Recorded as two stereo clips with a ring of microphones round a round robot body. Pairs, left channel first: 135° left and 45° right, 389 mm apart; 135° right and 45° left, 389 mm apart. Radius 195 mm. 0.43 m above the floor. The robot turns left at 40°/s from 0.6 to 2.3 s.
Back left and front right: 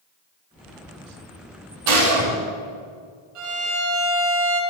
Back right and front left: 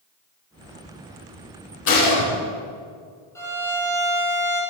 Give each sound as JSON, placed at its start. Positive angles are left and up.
{"t": 1.9, "sound": "a gunshot", "azimuth_deg": -75, "distance_m": 7.5}
{"t": 3.4, "sound": "a violin", "azimuth_deg": -50, "distance_m": 6.5}